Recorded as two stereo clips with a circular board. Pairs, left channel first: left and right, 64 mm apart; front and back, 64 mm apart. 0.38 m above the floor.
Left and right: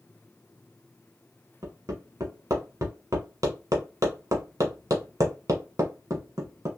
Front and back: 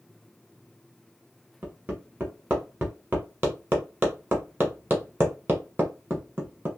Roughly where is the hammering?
Behind right.